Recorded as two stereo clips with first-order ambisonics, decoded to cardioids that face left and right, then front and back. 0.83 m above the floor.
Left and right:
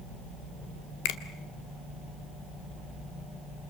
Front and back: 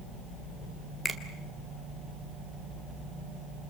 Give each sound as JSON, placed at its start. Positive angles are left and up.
{"t": 1.1, "sound": "a finger snap", "azimuth_deg": 80, "distance_m": 1.8}